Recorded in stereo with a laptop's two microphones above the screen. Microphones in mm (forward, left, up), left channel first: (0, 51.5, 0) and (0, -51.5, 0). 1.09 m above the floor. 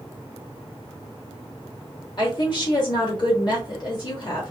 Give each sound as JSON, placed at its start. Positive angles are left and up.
{"t": 2.2, "sound": "a woman speaking", "side_deg": 45, "distance_m": 1.8}